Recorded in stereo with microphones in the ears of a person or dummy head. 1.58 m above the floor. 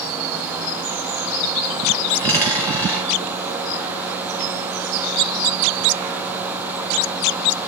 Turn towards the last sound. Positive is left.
turn(degrees=5)  # may be behind; listen again after turning